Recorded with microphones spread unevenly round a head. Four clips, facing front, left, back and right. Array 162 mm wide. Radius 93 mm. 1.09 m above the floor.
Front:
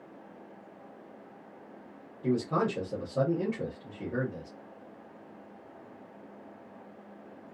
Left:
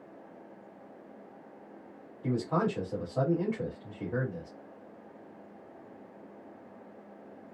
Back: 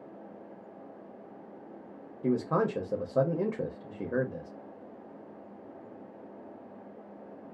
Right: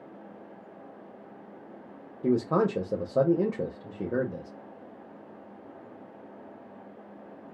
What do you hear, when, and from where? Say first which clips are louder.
2.2 s a man speaking: right 5 dB, back 1 dB; 115° right, 0.8 m